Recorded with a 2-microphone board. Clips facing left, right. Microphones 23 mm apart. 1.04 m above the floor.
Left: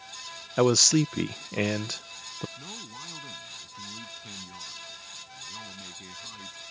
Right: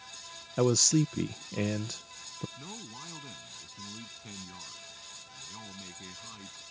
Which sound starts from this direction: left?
A man speaking, at 0.6 s.